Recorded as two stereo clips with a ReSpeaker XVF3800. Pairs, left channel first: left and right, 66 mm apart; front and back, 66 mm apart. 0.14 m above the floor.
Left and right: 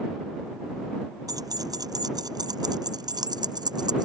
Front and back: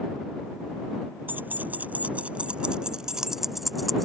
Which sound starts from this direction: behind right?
Keys jangling, at 1.3 s.